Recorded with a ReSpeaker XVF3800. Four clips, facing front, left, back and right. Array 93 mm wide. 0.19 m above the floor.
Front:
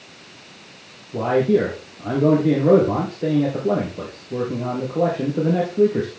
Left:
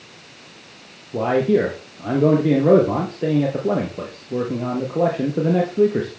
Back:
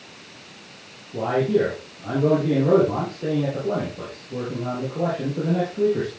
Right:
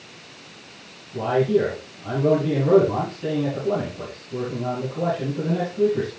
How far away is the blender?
I don't hear a blender.